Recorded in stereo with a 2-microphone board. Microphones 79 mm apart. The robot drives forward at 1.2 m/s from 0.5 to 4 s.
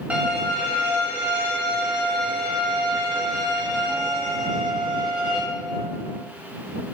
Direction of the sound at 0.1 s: 15° right (ahead or behind).